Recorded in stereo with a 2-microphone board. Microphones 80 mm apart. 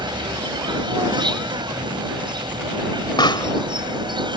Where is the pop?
75° left (ahead or behind).